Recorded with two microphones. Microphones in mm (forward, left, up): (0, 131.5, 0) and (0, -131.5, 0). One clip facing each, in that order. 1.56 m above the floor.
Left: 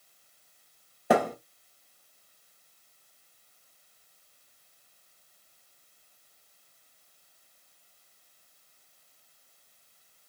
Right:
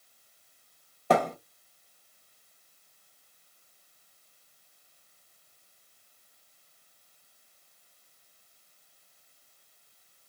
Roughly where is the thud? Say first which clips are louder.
Left 1 dB; centre.